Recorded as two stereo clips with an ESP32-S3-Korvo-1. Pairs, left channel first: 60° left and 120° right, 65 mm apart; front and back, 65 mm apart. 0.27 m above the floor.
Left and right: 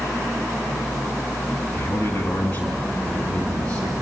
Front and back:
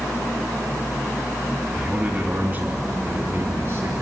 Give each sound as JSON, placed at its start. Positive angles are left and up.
{"t": 1.7, "sound": "a man speaking", "azimuth_deg": 105, "distance_m": 2.5}